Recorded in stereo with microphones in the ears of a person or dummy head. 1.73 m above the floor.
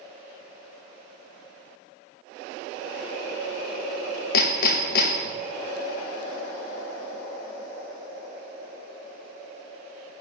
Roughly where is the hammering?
Left.